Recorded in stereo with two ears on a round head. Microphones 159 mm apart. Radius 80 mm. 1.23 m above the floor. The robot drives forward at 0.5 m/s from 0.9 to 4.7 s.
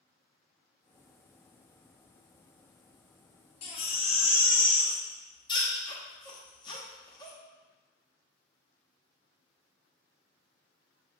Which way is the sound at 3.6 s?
35° left (ahead or behind).